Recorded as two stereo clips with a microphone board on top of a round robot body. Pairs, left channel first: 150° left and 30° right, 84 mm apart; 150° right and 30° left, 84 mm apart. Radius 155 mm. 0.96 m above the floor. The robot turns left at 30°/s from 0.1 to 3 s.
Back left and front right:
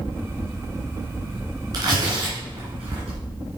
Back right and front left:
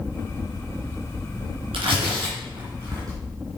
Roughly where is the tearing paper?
Ahead.